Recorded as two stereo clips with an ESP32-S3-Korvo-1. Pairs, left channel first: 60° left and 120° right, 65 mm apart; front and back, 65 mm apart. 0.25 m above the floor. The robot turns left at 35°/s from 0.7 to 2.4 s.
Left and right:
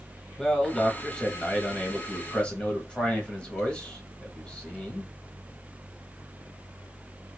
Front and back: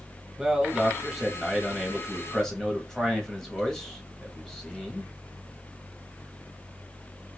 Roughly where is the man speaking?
Behind left.